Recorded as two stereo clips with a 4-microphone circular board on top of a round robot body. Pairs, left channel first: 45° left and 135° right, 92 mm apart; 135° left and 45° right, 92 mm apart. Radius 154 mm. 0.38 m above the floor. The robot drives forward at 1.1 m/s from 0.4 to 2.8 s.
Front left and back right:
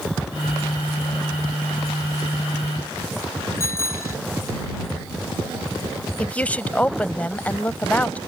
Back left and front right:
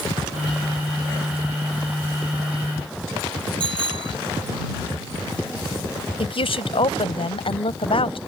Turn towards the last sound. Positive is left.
turn(degrees=120)